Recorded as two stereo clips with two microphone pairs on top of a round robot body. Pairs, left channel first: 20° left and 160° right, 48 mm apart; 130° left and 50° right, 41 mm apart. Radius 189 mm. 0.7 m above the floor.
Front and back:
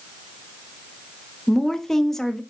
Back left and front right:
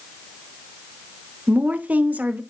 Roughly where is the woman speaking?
Ahead right.